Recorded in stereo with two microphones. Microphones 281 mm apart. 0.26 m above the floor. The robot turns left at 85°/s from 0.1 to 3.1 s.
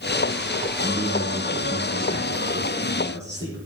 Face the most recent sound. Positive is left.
turn(degrees=165)